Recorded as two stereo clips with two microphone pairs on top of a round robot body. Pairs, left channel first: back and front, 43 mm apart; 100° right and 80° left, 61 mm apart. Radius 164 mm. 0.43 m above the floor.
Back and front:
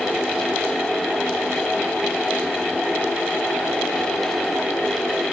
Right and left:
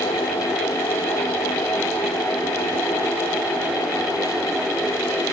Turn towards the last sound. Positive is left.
No sound to turn to.